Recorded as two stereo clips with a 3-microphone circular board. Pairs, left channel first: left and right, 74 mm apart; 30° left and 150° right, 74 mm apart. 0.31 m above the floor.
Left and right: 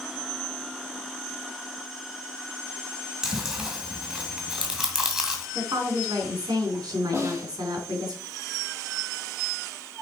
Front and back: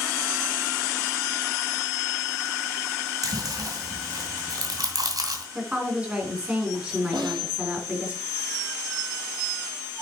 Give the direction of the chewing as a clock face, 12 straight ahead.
6 o'clock.